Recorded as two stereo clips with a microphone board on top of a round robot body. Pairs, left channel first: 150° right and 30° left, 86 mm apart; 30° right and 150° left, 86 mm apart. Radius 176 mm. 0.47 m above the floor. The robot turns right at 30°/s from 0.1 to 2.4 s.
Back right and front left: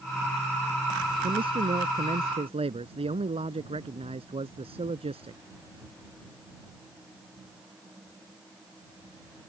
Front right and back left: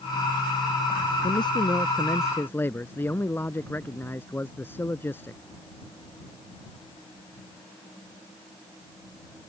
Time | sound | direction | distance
1.2 | a man speaking | straight ahead | ?